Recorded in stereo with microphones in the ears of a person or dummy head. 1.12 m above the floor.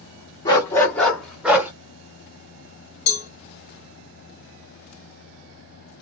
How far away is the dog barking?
About 1.2 m.